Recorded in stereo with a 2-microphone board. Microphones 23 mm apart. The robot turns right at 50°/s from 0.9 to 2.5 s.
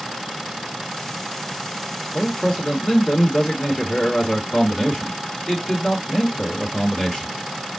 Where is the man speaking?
30° left (ahead or behind), 1.9 m; by 7.3 s 35° left (ahead or behind), 1.9 m.